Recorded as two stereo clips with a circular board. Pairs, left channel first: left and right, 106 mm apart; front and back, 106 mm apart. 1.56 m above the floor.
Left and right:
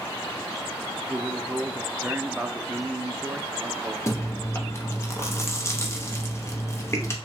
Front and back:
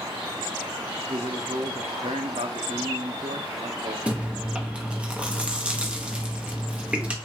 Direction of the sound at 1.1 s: 170° right.